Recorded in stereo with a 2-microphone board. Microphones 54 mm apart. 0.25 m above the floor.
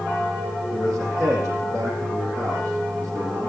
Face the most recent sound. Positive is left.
turn(degrees=-60)  # may be behind; listen again after turning